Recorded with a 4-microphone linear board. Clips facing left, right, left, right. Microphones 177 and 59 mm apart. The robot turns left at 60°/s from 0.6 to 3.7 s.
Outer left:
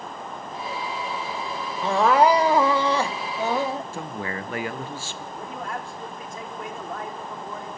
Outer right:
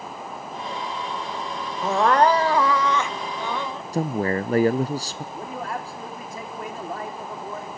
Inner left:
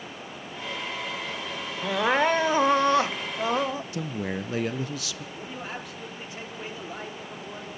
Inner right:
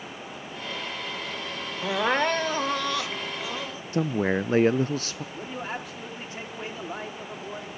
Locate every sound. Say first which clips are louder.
1.8 s crying: even, inner left 1 dB; 170° right, 0.6 m; by 3.8 s 80° left, 0.6 m
3.9 s a man speaking: outer right 8 dB, inner right 6 dB; 40° right (ahead or behind), 0.5 m
5.3 s a man speaking: outer right 2 dB, inner right 4 dB; 35° right (ahead or behind), 3.5 m